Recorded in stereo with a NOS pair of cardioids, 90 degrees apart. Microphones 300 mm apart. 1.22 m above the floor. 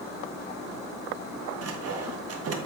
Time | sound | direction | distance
1.6 | sawing | 50° right | 1.2 m